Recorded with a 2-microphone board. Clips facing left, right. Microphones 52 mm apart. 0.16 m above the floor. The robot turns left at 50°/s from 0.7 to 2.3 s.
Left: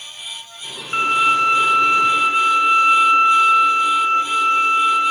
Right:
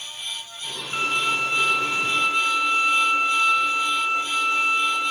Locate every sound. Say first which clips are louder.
0.9 s a violin: left 8 dB; 125° left, 1.1 m; by 5.1 s 55° left, 1.1 m